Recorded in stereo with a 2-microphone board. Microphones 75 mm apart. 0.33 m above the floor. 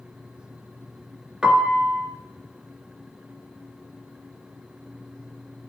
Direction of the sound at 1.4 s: 10° right (ahead or behind).